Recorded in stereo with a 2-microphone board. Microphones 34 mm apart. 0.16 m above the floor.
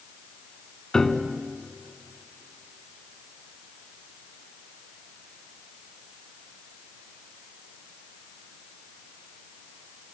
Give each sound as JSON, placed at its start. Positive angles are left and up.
{"t": 0.9, "sound": "a piano", "side_deg": 15, "distance_m": 1.2}